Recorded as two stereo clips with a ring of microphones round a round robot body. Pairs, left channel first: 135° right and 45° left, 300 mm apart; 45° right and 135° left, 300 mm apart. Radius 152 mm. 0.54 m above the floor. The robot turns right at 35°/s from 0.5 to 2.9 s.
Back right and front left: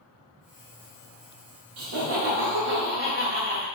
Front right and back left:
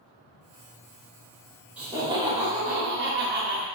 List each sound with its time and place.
1.8 s laughter: 50° left, 1.3 m; by 3.7 s 90° left, 1.3 m